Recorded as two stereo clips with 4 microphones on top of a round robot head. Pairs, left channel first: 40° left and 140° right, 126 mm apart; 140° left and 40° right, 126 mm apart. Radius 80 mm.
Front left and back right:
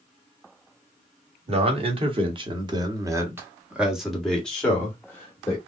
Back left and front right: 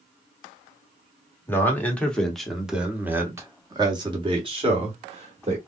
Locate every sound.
1.5 s a man speaking: 155° right, 1.5 m; by 5.6 s 25° right, 1.7 m